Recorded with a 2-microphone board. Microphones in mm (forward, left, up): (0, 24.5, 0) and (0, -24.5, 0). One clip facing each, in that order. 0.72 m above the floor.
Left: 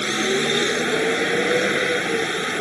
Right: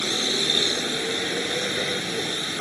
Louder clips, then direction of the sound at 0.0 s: Left 5 dB; 35° left (ahead or behind).